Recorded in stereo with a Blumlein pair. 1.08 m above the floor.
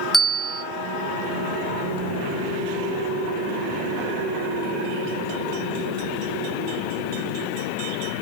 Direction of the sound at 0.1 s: Straight ahead.